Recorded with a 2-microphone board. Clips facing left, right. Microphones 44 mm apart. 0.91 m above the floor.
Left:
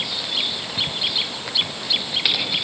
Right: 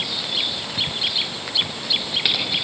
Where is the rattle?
No rattle in this recording.